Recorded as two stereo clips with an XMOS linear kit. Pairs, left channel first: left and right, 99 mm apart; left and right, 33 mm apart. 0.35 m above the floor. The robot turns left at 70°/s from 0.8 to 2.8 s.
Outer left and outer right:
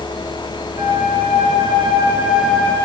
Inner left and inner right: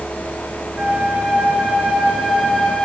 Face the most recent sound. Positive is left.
turn(degrees=160)